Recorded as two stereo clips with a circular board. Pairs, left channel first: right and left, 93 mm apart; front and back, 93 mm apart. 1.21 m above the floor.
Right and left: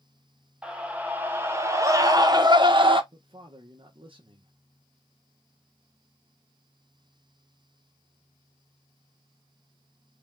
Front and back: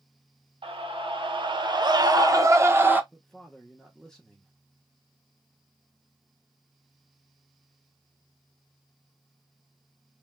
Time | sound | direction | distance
0.6 | a scream | 170° left | 1.7 m
3.1 | a man speaking | 85° left | 1.1 m